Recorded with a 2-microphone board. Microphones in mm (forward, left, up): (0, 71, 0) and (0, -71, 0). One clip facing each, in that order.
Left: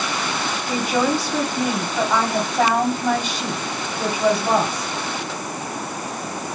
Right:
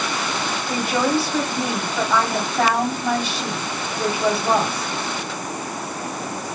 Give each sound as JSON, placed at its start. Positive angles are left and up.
{"t": 0.7, "sound": "a woman speaking", "side_deg": 0, "distance_m": 2.0}